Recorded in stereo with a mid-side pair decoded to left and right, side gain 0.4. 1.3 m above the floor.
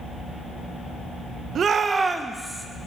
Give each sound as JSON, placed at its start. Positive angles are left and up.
{"t": 1.6, "sound": "a shout", "azimuth_deg": -65, "distance_m": 0.6}